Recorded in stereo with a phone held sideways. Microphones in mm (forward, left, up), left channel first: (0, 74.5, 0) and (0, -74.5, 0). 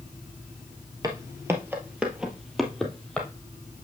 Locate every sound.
1.0 s footsteps: 25° right (ahead or behind), 1.5 m; by 3.3 s 5° left (ahead or behind), 2 m